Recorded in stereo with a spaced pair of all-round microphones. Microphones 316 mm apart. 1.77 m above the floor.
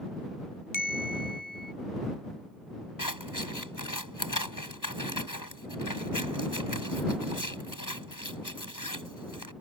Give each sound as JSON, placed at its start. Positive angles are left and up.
{"t": 0.7, "sound": "a bell", "side_deg": 85}
{"t": 3.0, "sound": "scissors", "side_deg": 80}